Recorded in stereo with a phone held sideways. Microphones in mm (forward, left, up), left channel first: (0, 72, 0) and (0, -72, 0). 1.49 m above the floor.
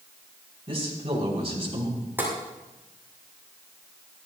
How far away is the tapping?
About 7 m.